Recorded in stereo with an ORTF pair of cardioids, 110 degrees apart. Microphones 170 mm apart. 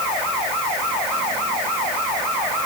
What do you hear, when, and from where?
Only background noise.